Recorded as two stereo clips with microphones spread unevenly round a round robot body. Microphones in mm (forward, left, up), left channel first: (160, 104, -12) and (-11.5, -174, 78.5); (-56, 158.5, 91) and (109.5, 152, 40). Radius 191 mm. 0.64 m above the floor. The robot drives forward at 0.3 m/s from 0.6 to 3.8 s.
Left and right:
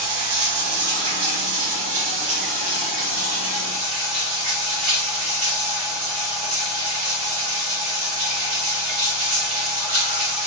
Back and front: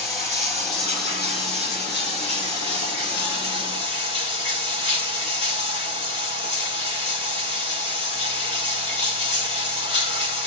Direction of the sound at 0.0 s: 130° right.